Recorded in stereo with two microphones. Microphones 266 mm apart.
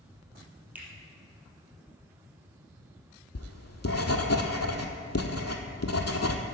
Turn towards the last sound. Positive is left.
turn(degrees=70)  # may be behind; listen again after turning